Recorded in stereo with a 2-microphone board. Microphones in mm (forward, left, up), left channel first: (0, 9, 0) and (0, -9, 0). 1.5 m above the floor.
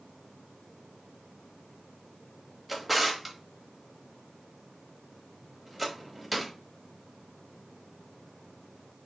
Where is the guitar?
I don't hear a guitar.